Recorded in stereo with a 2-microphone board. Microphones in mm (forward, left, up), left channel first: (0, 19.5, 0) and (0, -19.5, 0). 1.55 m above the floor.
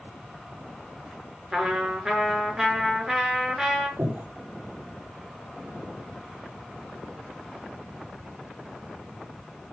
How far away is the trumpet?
About 6 m.